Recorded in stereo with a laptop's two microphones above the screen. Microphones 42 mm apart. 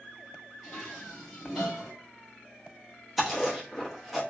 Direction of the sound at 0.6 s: 5° right (ahead or behind).